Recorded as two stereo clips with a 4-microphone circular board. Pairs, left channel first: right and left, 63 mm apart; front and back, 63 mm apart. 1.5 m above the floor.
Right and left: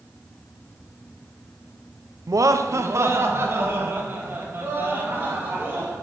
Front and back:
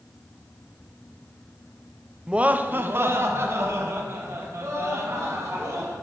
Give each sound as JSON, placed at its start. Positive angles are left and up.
{"t": 2.3, "sound": "laughter", "azimuth_deg": 105, "distance_m": 0.7}